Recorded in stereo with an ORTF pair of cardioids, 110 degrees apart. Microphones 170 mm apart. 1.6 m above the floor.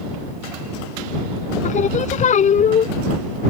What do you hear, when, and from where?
1.6 s singing: 45° left